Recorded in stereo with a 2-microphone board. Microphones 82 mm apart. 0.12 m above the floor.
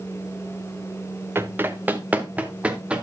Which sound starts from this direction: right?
Running footsteps, at 1.4 s.